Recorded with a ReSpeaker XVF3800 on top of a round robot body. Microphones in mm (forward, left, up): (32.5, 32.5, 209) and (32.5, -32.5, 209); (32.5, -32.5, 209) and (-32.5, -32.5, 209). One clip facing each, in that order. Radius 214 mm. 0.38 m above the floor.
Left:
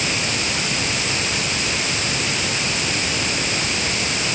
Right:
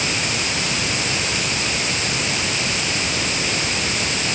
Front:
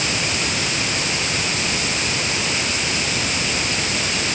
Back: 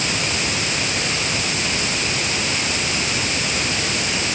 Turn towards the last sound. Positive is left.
No sound to turn to.